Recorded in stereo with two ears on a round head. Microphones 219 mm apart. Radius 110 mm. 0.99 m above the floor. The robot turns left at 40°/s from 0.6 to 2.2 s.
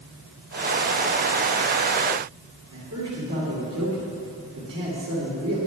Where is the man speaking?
60° right (ahead or behind), 3 m.